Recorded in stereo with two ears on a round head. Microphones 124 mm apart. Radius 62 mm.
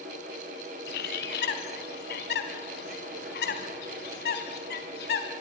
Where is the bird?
85° left, 3 m.